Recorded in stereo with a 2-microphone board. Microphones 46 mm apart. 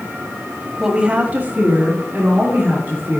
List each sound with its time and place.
0.8 s a woman speaking: 15° right (ahead or behind), 1.0 m; by 3.2 s 40° right (ahead or behind), 3 m